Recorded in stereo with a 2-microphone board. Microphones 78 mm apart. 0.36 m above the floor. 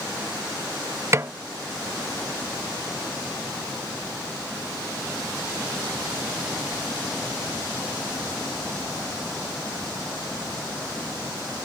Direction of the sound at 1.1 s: 35° right (ahead or behind).